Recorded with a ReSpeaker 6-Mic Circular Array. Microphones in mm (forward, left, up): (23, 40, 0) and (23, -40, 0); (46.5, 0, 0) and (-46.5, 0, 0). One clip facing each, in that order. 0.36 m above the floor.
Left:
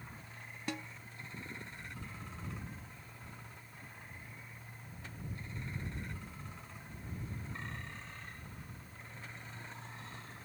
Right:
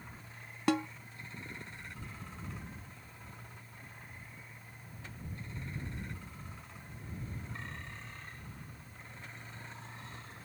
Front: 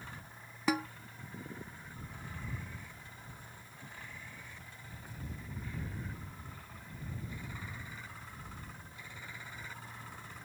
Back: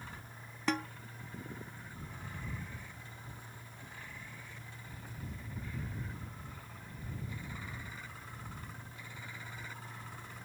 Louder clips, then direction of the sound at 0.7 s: Right 12 dB, front 2 dB; 85° right.